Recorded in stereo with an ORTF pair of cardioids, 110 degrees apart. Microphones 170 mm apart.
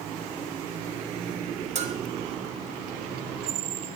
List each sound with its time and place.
1.8 s a bell: 40° right, 2.5 m